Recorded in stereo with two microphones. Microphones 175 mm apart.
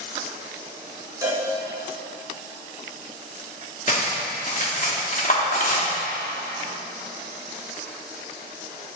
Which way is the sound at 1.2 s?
20° right (ahead or behind).